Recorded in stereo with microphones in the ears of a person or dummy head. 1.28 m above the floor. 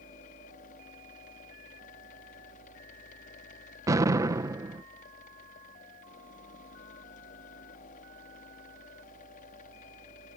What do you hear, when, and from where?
0.0 s a fan: 50° left (ahead or behind)
3.9 s an explosion: 15° right (ahead or behind)